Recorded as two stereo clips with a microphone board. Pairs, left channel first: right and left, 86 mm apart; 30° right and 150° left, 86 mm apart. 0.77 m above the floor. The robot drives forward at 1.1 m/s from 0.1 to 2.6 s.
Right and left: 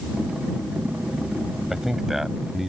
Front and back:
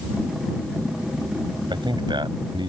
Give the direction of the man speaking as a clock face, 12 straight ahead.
6 o'clock.